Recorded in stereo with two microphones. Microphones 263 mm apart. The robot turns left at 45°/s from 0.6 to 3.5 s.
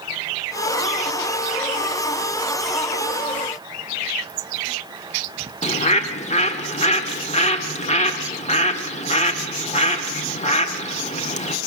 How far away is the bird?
About 1.7 m.